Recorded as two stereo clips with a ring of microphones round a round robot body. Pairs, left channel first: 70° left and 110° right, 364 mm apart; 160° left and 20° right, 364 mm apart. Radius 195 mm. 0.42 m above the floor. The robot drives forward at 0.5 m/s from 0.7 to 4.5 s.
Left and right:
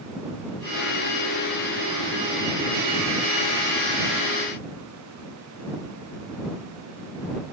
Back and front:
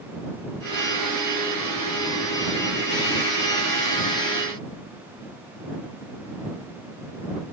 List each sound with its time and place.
Only background noise.